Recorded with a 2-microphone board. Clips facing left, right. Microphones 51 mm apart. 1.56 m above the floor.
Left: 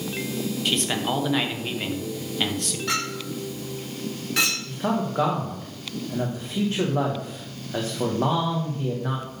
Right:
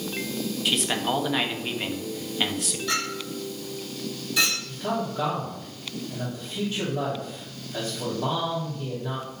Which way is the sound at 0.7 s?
5° right (ahead or behind).